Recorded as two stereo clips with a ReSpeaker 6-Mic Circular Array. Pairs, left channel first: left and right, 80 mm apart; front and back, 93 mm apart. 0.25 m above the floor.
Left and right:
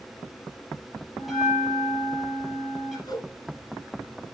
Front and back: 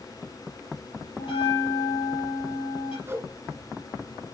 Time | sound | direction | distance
1.2 | a bell | straight ahead | 3.5 m
3.1 | a whoosh | 120° left | 3.5 m